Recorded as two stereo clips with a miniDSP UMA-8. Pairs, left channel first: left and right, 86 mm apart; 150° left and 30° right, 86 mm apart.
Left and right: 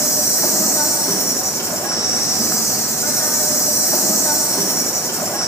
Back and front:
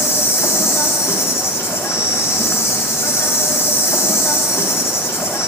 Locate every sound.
0.0 s an insect: 115° left, 1.3 m